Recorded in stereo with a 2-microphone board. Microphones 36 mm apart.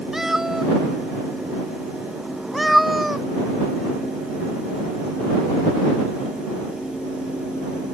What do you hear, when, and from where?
0.1 s a cat meowing: 15° right (ahead or behind); by 3.2 s 5° right (ahead or behind)